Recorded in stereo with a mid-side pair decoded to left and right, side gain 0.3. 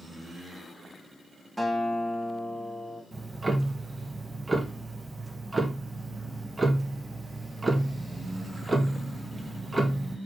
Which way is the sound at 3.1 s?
30° right.